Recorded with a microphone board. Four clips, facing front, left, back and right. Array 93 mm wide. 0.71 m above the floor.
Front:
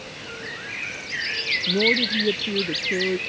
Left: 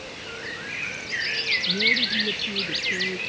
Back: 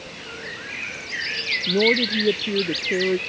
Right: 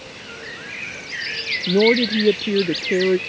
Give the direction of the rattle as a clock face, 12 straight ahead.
No rattle in this recording.